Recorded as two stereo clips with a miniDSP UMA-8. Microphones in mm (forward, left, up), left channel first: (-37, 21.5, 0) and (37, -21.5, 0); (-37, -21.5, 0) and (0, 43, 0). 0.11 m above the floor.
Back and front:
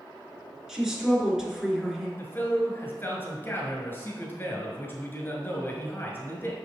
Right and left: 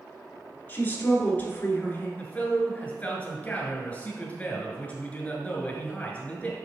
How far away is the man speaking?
About 1.5 m.